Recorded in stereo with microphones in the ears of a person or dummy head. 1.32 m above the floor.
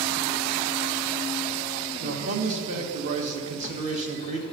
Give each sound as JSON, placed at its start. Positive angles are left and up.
{"t": 2.0, "sound": "a man speaking", "side_deg": -45, "distance_m": 1.7}